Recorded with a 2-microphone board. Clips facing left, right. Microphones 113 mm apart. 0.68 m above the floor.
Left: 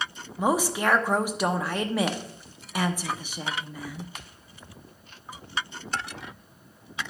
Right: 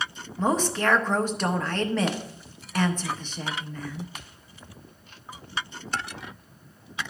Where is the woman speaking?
10° left (ahead or behind), 0.8 m.